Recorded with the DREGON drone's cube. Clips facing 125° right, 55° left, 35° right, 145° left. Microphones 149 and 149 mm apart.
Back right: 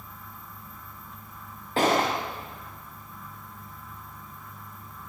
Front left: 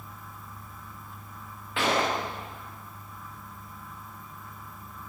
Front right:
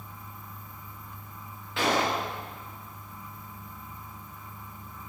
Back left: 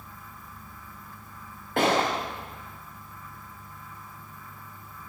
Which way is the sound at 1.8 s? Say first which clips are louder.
Back right 3 dB, back left 3 dB; 175° right.